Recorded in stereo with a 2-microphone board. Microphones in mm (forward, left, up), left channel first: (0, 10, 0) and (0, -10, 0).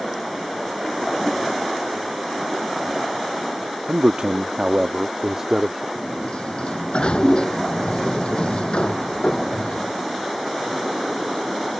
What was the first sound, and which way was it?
A man speaking, 55° right (ahead or behind).